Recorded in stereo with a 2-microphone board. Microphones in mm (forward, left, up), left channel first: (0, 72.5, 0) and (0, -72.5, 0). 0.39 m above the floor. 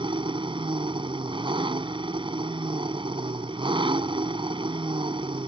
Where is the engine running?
35° right (ahead or behind).